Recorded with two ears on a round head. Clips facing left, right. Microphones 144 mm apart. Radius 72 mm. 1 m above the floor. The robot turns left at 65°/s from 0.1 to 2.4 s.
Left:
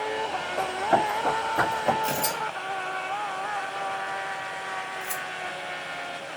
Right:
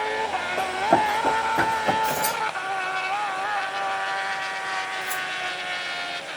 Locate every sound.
0.6 s running footsteps: 50° right (ahead or behind), 1.7 m; by 1.9 s 10° left (ahead or behind), 2 m
2.0 s tearing paper: 15° left (ahead or behind), 1.9 m; by 5.2 s 35° left (ahead or behind), 1.9 m